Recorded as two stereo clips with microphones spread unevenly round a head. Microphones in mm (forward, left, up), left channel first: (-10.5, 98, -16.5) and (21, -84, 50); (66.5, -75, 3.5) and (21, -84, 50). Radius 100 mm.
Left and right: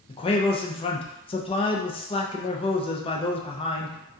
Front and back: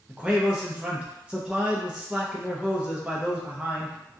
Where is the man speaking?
75° left, 0.5 m.